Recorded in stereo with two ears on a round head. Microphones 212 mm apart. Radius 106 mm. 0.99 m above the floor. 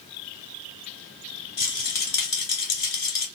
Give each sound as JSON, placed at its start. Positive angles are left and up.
{"t": 1.6, "sound": "a rattle", "side_deg": 40, "distance_m": 2.5}